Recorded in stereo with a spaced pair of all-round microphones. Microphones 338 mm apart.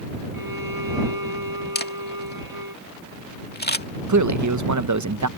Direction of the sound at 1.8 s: 30° left (ahead or behind).